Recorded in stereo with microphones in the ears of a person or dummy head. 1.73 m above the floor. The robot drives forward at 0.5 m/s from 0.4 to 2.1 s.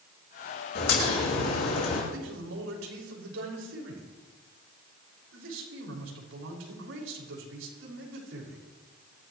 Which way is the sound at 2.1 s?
85° right.